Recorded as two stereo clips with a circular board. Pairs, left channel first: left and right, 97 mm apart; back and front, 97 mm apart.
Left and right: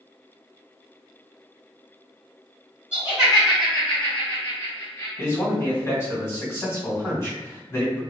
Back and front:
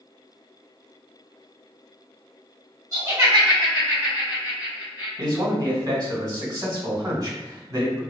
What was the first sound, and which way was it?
Laughter, 20° right.